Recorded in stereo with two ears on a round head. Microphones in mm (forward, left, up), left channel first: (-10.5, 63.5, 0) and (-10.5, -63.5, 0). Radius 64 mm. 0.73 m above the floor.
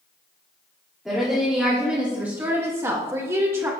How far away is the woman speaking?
About 1.7 m.